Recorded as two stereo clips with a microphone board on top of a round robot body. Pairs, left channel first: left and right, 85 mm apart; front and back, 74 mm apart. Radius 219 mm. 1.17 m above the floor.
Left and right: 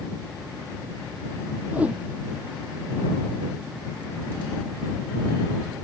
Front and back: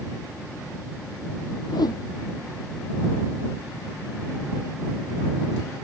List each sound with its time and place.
1.7 s a whoosh: 15° right